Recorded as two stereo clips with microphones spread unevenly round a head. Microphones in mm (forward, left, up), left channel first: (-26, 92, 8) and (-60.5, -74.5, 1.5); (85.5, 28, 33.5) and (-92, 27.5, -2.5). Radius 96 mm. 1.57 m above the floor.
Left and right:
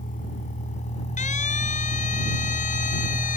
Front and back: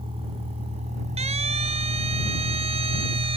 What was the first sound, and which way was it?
A vehicle, 120° left.